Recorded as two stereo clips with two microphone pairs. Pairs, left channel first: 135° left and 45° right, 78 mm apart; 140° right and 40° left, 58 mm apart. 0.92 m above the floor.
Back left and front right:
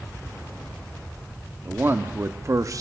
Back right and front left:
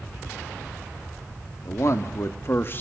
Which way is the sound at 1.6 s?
105° right.